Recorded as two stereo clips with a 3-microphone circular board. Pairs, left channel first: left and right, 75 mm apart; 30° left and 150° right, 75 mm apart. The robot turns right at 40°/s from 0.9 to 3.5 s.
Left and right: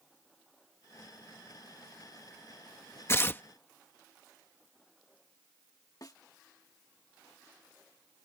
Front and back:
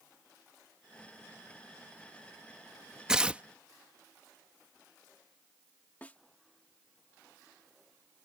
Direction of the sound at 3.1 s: 130° left.